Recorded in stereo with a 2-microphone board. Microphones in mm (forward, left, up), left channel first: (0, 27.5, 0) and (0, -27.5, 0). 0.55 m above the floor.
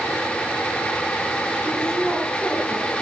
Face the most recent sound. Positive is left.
turn(degrees=-40)  # may be behind; listen again after turning